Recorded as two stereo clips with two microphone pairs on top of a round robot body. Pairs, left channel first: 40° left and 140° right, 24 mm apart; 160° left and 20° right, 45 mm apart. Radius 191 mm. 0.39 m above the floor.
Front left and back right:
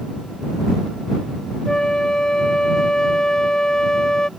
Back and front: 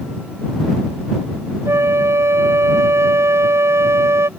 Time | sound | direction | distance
1.6 | a flute | 20° right | ?